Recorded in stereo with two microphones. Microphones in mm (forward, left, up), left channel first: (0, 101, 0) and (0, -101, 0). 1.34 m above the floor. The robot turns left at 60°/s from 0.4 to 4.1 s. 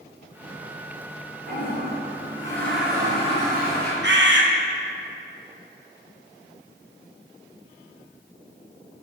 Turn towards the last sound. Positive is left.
turn(degrees=-65)  # may be behind; listen again after turning